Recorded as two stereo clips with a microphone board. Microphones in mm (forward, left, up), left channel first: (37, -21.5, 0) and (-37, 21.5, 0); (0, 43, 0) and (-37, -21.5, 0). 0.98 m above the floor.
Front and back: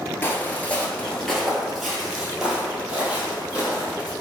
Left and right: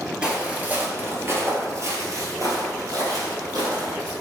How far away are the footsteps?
About 1.0 m.